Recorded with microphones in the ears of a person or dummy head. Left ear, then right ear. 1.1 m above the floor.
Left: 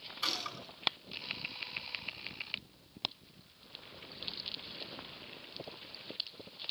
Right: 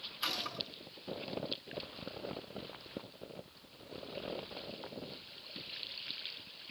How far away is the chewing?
I don't hear chewing.